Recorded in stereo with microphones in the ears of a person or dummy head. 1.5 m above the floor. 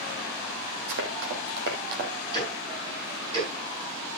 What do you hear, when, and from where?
0.9 s running footsteps: 60° right (ahead or behind), 3 m; by 2.1 s 50° right (ahead or behind), 2.5 m
2.3 s ticking: 30° right (ahead or behind), 6.5 m